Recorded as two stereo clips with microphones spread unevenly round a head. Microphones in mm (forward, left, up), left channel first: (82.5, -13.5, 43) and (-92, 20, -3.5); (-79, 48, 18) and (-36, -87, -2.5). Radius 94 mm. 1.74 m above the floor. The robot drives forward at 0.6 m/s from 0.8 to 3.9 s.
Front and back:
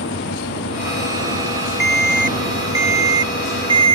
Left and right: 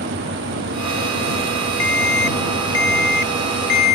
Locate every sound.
0.0 s an engine running: 45° right
1.8 s an alarm: 85° left; by 4.0 s 110° left